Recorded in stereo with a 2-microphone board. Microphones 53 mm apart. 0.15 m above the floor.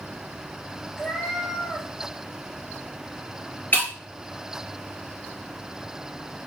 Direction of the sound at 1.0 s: 5° left (ahead or behind).